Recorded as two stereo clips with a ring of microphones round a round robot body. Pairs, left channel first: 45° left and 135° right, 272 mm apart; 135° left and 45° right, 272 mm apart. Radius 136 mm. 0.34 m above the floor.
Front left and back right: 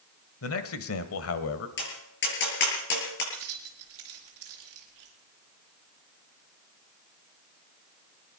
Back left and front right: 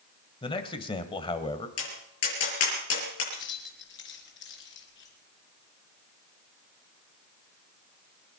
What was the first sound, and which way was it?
A man speaking, 65° left.